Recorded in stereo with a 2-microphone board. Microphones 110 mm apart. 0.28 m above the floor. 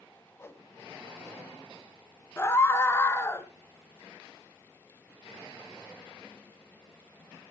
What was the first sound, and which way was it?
A whoosh, 25° left (ahead or behind).